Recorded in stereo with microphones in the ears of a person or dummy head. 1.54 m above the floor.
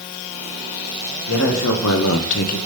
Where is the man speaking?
70° left (ahead or behind), 2 m; by 2.6 s 45° left (ahead or behind), 1.1 m.